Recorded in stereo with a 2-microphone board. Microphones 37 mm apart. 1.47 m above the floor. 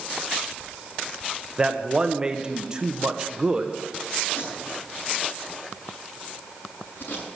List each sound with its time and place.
1.6 s a man speaking: 20° right (ahead or behind), 1.2 m
4.3 s tape being pulled: 55° left (ahead or behind), 7 m